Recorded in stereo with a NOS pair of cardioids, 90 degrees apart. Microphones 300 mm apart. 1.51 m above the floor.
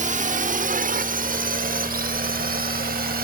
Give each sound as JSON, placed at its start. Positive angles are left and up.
{"t": 0.0, "sound": "a drone", "azimuth_deg": -25}